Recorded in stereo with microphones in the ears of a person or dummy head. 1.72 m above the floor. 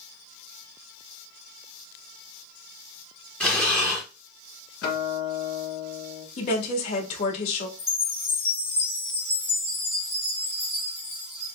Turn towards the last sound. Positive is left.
turn(degrees=10)  # may be behind; listen again after turning